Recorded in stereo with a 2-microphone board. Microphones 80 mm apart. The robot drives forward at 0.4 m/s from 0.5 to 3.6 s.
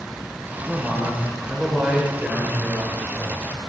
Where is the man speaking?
15° right (ahead or behind), 1.0 m; by 3.4 s 5° right (ahead or behind), 2.0 m.